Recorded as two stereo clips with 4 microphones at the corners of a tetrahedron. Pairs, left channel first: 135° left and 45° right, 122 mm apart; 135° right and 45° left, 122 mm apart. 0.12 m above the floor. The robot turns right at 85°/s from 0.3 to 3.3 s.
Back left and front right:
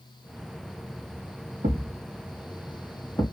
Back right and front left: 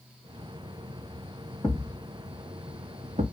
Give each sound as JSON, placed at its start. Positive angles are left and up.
{"t": 1.6, "sound": "a thud", "azimuth_deg": -70, "distance_m": 2.5}